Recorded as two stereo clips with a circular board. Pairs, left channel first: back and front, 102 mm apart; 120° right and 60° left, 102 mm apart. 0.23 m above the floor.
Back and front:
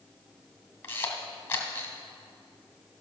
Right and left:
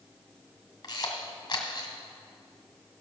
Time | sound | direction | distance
0.8 | a camera shutter | 125° right | 1.7 m